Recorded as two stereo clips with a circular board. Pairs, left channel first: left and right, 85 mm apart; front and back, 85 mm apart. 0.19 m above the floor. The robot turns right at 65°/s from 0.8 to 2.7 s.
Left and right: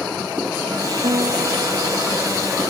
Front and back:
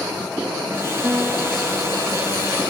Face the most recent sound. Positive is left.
turn(degrees=-5)